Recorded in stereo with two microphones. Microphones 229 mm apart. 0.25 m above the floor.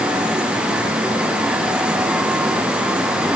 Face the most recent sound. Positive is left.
No sound to turn to.